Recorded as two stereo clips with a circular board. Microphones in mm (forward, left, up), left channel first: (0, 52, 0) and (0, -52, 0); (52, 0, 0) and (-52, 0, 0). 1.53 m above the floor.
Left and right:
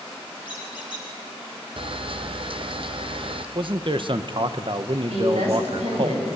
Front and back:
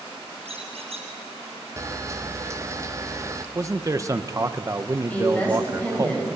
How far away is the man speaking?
About 1.0 m.